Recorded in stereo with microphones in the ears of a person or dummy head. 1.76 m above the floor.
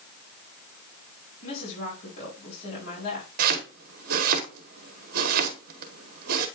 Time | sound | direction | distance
1.4 | a woman speaking | 45° left (ahead or behind) | 4.5 m
3.4 | chopping | 50° right (ahead or behind) | 1.3 m